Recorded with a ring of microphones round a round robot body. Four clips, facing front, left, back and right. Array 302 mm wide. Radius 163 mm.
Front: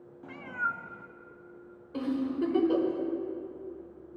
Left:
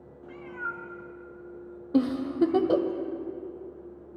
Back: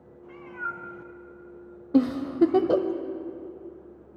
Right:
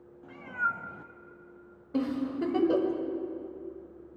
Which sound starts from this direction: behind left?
A giggle, at 1.9 s.